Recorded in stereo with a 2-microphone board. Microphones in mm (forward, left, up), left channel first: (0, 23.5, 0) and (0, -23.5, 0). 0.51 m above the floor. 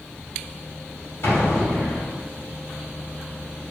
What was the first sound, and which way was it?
An explosion, 70° left (ahead or behind).